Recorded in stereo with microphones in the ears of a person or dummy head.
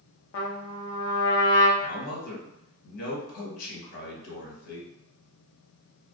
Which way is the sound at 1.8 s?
60° left (ahead or behind).